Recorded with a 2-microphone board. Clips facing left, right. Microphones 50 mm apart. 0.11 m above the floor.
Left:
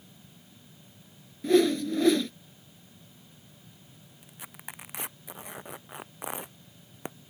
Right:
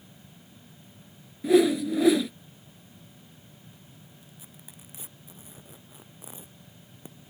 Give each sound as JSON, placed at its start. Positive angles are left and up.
{"t": 1.4, "sound": "a whoosh", "side_deg": -10}
{"t": 4.2, "sound": "tearing paper", "side_deg": 75}